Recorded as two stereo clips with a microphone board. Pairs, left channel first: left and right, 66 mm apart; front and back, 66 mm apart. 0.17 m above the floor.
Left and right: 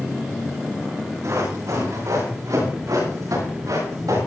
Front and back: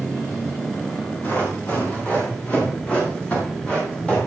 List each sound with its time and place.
1.2 s running footsteps: 60° right, 8.5 m; by 4.2 s 75° right, 10 m